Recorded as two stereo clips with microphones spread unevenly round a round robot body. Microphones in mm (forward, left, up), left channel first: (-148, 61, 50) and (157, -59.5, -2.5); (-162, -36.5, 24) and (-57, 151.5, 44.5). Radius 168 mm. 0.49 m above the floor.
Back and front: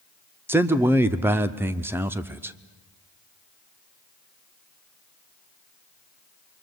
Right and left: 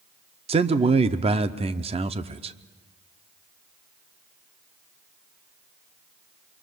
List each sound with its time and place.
0.5 s a man speaking: 30° left, 0.7 m